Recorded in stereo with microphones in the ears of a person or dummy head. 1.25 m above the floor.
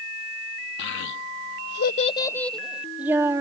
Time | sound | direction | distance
0.8 | a child speaking | 65° left (ahead or behind) | ?